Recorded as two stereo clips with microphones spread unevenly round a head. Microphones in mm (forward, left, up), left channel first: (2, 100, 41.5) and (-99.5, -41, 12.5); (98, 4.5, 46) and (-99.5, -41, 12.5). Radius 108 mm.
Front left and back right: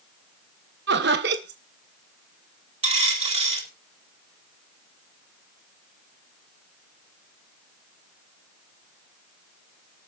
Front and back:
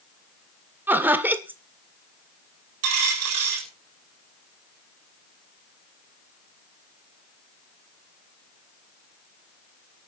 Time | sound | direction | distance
0.9 | laughter | 85° right | 1.5 m
2.8 | a dropped coin | 175° left | 6.5 m